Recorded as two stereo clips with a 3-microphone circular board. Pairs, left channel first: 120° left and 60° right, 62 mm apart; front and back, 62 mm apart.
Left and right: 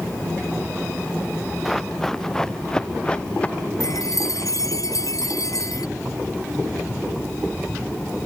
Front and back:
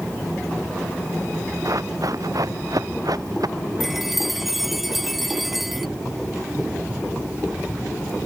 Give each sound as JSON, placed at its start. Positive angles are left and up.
{"t": 1.6, "sound": "running footsteps", "azimuth_deg": -155}
{"t": 3.8, "sound": "a chime", "azimuth_deg": 95}